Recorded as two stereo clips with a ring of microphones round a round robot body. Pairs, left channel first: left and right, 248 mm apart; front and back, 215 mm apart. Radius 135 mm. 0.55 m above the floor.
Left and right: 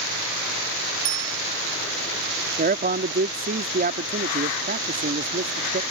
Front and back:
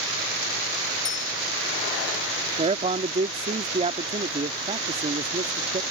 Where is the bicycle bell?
60° right.